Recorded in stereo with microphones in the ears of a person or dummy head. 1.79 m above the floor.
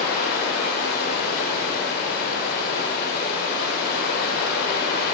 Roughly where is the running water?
Left.